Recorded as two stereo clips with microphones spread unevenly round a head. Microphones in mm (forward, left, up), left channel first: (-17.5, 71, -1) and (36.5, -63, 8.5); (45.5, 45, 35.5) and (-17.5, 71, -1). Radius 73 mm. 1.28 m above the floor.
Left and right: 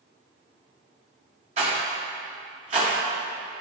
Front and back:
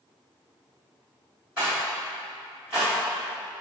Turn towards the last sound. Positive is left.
turn(degrees=-115)